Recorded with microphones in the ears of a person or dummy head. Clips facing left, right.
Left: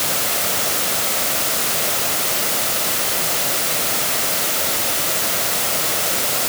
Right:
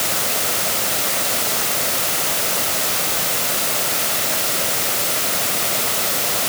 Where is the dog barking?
I don't hear a dog barking.